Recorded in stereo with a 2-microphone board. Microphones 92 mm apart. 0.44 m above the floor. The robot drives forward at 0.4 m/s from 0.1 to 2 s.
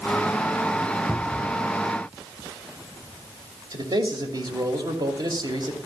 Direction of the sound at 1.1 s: 20° left (ahead or behind).